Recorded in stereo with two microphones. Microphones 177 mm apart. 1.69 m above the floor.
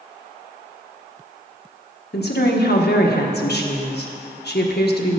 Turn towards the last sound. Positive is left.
turn(degrees=70)  # may be behind; listen again after turning